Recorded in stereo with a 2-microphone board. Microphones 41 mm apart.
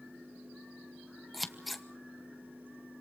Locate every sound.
1.3 s scissors: centre (ahead or behind), 1.2 m